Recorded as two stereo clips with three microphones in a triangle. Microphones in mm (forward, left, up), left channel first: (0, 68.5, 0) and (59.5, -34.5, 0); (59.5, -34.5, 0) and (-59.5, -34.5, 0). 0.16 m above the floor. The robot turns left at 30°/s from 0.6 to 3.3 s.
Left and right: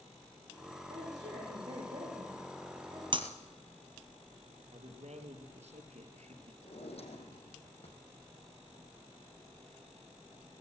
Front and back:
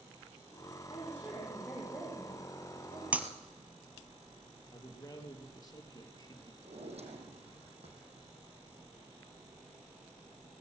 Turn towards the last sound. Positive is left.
turn(degrees=150)